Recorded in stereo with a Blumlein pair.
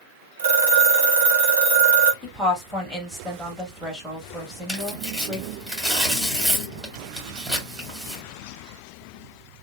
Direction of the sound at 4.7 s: Straight ahead.